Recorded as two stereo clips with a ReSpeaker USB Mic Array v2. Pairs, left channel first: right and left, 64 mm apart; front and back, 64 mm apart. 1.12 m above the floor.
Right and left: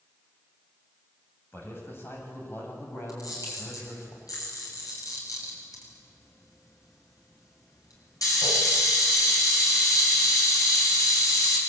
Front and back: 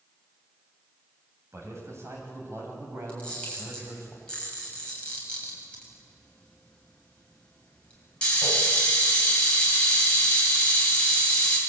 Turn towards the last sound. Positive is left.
turn(degrees=-75)